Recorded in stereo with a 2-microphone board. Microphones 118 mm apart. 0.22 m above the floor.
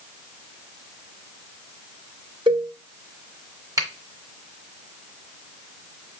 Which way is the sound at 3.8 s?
30° right (ahead or behind).